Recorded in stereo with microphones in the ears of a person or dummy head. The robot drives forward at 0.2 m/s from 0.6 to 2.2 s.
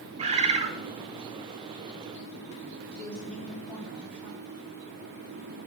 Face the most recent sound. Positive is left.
turn(degrees=0)  # may be behind; listen again after turning